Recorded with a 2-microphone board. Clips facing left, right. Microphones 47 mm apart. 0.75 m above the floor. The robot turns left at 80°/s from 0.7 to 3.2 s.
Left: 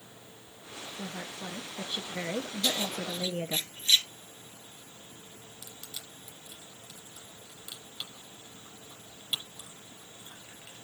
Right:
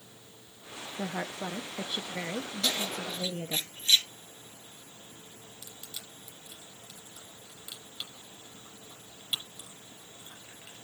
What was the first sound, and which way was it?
A woman speaking, 85° right.